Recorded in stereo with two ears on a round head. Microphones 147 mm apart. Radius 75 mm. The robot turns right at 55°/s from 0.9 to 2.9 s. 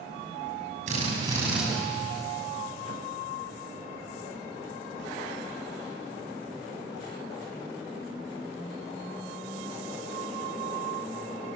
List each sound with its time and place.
0.9 s a drill: 45° right, 6.5 m; by 1.6 s 5° right, 6.5 m